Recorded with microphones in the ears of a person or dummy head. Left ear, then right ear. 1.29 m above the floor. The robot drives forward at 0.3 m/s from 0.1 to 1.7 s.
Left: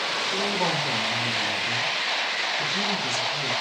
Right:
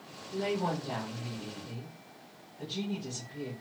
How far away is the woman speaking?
About 1.4 m.